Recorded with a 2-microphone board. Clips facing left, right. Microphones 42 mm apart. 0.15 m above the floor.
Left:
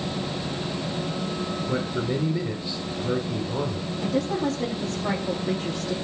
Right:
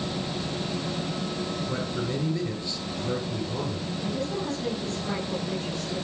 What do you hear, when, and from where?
1.7 s a man speaking: 25° left (ahead or behind), 2 m
4.0 s a woman speaking: 75° left (ahead or behind), 5.5 m